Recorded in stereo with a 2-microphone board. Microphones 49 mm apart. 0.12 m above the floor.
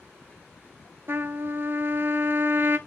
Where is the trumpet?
50° right (ahead or behind), 0.7 m.